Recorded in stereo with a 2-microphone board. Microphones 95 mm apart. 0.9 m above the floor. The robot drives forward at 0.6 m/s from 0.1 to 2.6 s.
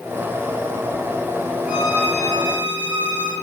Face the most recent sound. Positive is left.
turn(degrees=-20)  # may be behind; listen again after turning